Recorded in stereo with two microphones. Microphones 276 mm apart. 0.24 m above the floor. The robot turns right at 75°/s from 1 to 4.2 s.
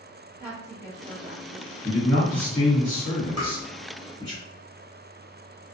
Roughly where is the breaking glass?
I don't hear breaking glass.